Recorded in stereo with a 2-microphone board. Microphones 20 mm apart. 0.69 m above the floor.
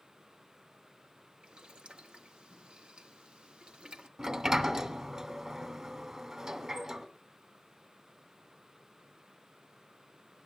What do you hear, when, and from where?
1.4 s boiling: 65° right (ahead or behind), 1.3 m
4.2 s a sliding door: 35° right (ahead or behind), 1.6 m